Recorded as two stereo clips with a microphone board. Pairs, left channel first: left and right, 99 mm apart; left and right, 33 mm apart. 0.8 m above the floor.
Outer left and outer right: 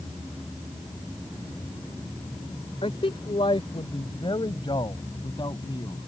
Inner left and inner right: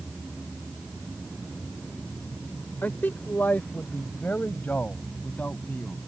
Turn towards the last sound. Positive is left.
turn(degrees=45)  # may be behind; listen again after turning